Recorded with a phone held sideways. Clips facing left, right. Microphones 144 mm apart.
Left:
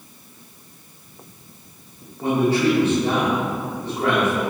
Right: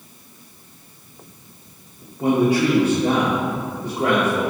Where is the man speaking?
15° right (ahead or behind), 2.5 m.